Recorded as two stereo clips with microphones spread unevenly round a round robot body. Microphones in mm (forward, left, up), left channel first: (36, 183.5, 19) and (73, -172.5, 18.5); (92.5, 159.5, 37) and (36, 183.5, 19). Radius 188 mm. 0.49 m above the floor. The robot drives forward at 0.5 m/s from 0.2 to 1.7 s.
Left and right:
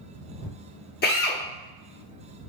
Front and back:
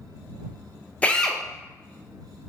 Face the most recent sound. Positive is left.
turn(degrees=135)